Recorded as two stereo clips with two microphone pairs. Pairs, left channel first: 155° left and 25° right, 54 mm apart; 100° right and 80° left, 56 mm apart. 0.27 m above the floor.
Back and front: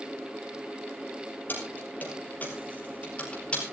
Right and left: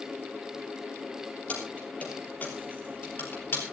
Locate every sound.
1.5 s keys jangling: 160° right, 6 m; by 3.6 s 140° right, 5 m